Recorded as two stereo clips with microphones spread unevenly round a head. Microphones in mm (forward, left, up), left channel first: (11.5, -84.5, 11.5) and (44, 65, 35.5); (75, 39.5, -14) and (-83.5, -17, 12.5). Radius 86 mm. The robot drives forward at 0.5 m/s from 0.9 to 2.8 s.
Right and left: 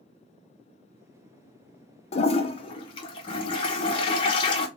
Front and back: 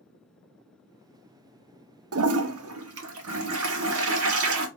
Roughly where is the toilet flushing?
Behind right.